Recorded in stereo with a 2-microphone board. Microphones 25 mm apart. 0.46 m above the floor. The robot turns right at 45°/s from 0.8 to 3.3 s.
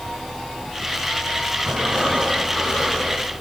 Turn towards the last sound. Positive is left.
turn(degrees=15)